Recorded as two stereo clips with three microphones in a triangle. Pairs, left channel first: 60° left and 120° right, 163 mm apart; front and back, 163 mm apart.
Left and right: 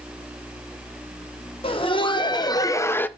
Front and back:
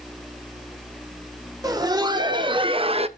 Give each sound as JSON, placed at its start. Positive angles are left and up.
{"t": 1.6, "sound": "laughter", "azimuth_deg": 115, "distance_m": 1.5}